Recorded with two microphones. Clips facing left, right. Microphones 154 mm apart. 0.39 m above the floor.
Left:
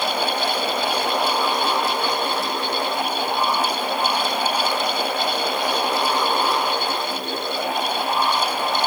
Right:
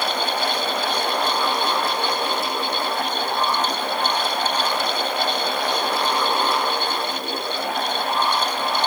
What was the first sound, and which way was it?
Only background noise.